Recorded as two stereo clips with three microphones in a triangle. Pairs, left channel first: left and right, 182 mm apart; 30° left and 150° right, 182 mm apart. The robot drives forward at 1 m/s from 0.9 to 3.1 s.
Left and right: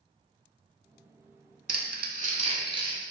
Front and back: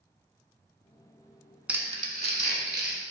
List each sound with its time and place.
1.7 s crumpling: 65° right, 0.6 m; by 3.0 s 160° right, 1.3 m